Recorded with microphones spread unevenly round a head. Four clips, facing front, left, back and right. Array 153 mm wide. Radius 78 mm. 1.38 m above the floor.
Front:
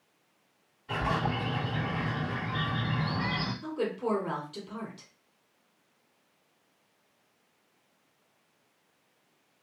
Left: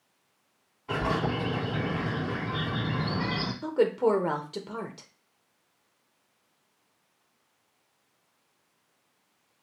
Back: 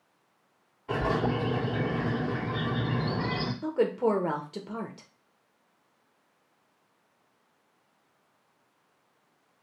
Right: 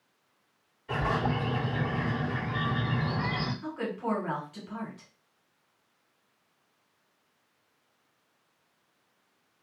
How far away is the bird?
About 3.5 m.